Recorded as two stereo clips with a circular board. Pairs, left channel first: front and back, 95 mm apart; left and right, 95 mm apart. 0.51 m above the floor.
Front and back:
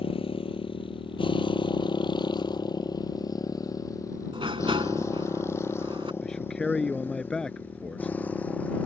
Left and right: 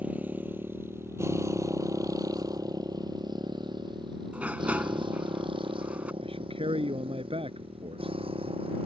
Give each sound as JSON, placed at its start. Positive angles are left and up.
{"t": 0.0, "sound": "a motorcycle", "azimuth_deg": -15}
{"t": 4.3, "sound": "a sliding door", "azimuth_deg": -165}
{"t": 6.2, "sound": "a man speaking", "azimuth_deg": -85}